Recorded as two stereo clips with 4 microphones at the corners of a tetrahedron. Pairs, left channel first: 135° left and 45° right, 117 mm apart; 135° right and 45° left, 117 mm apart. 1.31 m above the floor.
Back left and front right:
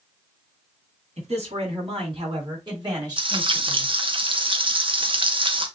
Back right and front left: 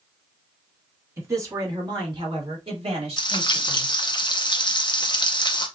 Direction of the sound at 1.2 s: 20° right.